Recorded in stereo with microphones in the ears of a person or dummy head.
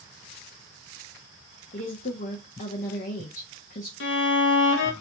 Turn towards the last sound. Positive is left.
turn(degrees=70)  # may be behind; listen again after turning